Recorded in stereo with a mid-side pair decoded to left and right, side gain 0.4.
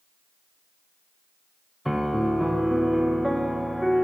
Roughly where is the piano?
Ahead.